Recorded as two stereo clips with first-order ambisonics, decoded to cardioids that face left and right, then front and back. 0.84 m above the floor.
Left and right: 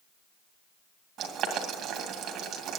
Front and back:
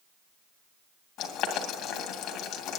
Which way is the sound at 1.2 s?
45° right.